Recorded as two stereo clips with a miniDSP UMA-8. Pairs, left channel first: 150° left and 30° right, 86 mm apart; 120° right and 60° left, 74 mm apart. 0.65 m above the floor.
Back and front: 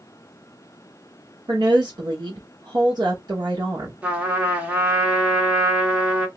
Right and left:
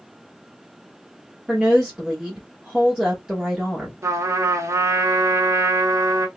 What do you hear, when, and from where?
1.5 s a woman speaking: 20° right, 1.2 m
4.0 s a trumpet: 40° left, 1.2 m